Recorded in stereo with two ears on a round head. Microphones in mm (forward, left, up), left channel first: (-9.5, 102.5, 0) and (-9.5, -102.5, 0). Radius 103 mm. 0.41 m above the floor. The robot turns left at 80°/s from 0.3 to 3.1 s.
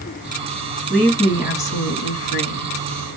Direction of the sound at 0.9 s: 175° right.